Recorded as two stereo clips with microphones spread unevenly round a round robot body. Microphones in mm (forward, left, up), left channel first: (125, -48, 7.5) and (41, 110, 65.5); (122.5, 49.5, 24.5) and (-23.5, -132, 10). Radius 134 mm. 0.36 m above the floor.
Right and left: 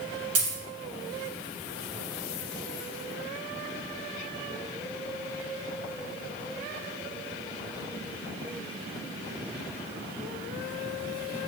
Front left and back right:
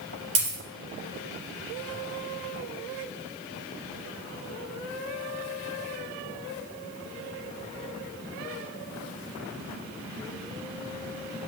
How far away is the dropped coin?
About 2.5 m.